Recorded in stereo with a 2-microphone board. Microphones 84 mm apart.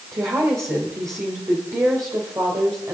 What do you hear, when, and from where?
0.1 s a woman speaking: 40° right (ahead or behind), 2.5 m